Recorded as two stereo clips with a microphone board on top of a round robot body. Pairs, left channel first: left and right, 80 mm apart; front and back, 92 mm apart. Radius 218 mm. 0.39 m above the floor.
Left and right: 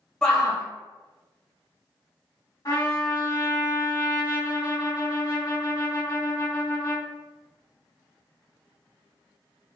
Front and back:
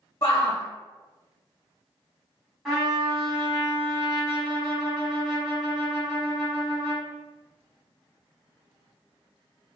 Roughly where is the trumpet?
Left.